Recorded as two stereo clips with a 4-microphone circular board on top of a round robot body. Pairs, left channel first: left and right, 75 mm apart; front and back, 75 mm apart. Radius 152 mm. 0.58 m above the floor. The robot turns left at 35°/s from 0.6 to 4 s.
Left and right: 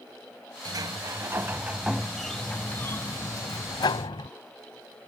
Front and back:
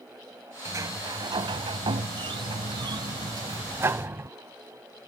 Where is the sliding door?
125° right; by 4.3 s 115° left.